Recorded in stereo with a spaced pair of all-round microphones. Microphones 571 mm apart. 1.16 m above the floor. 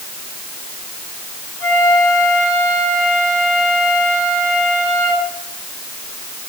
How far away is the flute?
About 9.5 m.